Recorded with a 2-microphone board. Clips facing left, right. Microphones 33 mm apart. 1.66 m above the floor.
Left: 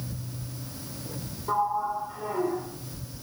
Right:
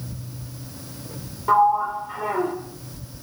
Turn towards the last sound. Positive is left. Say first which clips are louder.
# right 9 dB
turn(degrees=-60)  # may be behind; listen again after turning